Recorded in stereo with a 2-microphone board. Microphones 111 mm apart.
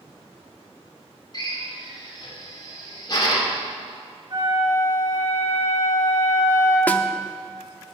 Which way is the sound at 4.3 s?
35° right (ahead or behind).